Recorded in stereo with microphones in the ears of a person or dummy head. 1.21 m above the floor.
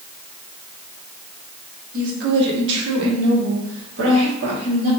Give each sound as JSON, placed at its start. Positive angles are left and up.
{"t": 1.9, "sound": "a woman speaking", "side_deg": -45, "distance_m": 1.1}